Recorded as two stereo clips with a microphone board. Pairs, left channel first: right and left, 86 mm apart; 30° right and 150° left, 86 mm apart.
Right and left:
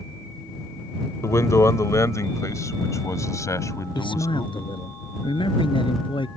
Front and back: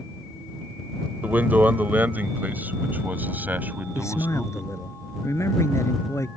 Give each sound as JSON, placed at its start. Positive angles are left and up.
{"t": 1.2, "sound": "a man speaking", "azimuth_deg": -140}
{"t": 4.0, "sound": "a man speaking", "azimuth_deg": -85}